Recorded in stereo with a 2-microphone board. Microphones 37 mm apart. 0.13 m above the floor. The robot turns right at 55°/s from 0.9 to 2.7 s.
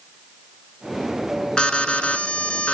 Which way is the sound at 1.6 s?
45° left.